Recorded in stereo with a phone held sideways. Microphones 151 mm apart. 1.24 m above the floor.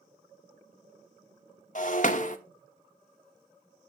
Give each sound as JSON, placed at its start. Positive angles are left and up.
{"t": 1.8, "sound": "breaking glass", "side_deg": 55, "distance_m": 0.7}